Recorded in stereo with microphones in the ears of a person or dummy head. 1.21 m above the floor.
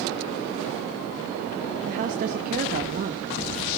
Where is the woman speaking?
45° right (ahead or behind), 1.2 m.